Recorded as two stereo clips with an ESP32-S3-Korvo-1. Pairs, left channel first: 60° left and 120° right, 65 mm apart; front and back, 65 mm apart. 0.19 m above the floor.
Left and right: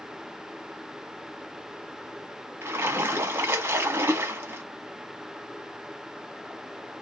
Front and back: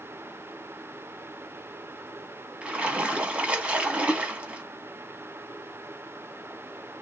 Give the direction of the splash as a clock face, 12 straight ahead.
4 o'clock.